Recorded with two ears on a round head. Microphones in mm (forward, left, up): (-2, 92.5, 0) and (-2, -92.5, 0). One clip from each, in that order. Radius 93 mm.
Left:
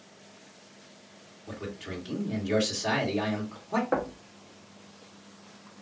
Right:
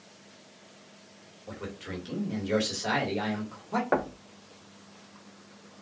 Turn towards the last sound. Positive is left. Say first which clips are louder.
# right 4 dB
turn(degrees=-25)  # may be behind; listen again after turning